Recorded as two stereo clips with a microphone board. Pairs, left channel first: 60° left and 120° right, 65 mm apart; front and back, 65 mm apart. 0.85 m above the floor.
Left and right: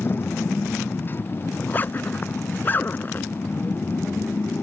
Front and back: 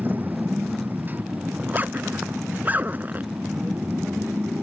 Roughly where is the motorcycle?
Behind left.